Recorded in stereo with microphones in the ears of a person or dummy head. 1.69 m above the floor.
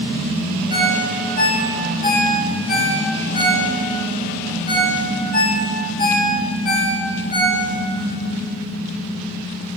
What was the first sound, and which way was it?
A ringtone, 50° left (ahead or behind).